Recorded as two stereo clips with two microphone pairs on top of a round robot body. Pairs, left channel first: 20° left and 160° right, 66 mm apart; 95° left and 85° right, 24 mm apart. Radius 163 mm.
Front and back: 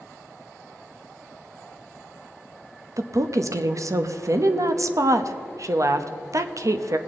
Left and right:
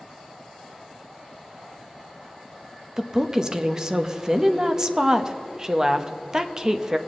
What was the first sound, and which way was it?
A woman speaking, 145° right.